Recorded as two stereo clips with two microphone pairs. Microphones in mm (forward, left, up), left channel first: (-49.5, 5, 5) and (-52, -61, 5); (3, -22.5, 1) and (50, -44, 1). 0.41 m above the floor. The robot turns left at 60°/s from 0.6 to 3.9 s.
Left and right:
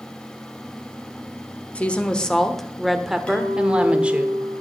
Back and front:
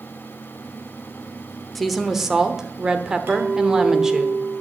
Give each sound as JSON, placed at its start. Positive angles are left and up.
{"t": 1.8, "sound": "a woman speaking", "azimuth_deg": 55, "distance_m": 0.9}
{"t": 3.3, "sound": "a clink", "azimuth_deg": 15, "distance_m": 2.5}